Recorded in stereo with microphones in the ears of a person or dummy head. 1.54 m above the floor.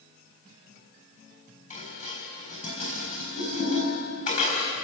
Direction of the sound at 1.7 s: 45° left (ahead or behind).